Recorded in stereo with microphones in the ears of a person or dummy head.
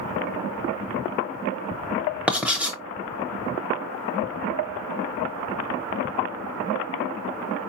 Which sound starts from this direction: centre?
Writing, at 2.3 s.